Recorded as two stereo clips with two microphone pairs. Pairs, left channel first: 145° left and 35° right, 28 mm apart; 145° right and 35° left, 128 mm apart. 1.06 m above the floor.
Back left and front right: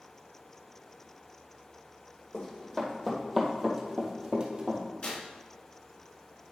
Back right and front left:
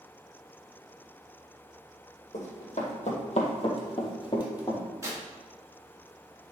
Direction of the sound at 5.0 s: 100° left.